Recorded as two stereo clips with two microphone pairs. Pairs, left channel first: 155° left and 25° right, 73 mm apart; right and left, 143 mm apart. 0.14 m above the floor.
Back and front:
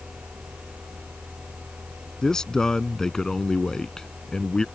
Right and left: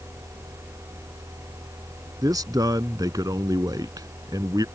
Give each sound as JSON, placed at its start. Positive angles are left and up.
{"t": 2.2, "sound": "a man speaking", "azimuth_deg": 90}